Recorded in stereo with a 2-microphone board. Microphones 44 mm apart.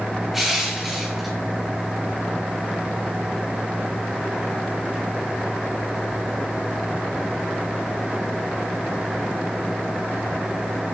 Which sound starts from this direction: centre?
Crushing, at 0.3 s.